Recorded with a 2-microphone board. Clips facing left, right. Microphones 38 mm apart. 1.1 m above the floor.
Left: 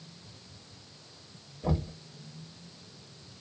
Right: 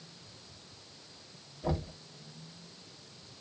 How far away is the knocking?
About 1.3 m.